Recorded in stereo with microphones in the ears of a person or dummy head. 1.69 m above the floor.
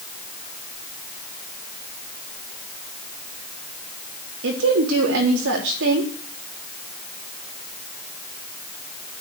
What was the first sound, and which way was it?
A woman speaking, 80° right.